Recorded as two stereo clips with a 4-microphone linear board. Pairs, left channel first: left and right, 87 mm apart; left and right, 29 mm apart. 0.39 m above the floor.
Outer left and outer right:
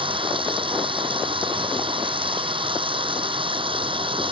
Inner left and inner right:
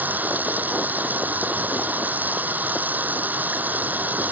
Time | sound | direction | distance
0.0 | running water | 80° right | ?